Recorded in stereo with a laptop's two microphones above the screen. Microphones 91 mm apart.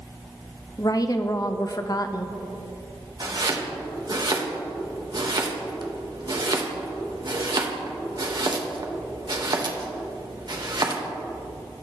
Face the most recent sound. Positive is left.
turn(degrees=-50)  # may be behind; listen again after turning